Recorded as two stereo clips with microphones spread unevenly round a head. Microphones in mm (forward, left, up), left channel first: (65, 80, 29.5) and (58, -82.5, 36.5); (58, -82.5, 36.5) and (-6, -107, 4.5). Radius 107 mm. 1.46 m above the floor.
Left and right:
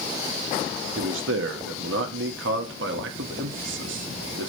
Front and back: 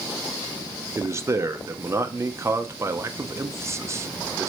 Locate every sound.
1.0 s a man speaking: 100° right, 0.9 m